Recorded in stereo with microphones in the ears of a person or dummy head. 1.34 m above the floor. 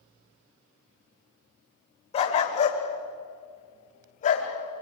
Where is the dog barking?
35° left (ahead or behind), 2.5 m; by 4.5 s 45° left (ahead or behind), 4 m.